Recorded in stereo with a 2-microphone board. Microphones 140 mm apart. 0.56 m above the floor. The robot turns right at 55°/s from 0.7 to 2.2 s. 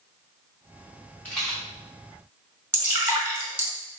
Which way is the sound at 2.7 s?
15° right (ahead or behind).